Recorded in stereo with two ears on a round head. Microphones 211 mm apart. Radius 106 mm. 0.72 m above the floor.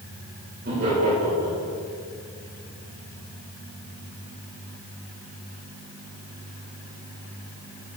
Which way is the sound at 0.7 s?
40° right (ahead or behind).